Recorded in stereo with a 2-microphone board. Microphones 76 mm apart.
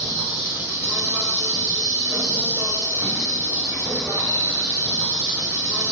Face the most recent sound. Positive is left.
turn(degrees=-45)  # may be behind; listen again after turning